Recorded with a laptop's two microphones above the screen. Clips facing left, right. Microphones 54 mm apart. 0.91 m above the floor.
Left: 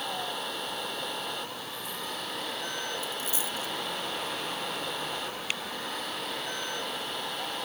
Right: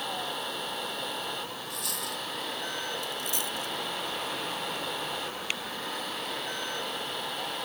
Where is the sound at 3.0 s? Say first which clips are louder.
Even; 60° right (ahead or behind).